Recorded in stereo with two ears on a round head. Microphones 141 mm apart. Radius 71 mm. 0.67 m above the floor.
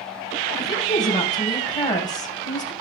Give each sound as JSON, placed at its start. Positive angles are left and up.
{"t": 0.6, "sound": "a woman speaking", "side_deg": 30, "distance_m": 3.0}